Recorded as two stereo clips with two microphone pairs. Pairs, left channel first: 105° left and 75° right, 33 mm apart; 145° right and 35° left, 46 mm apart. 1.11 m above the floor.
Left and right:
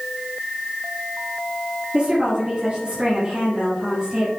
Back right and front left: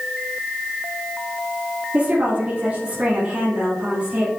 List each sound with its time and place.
1.9 s a woman speaking: 25° right, 2.5 m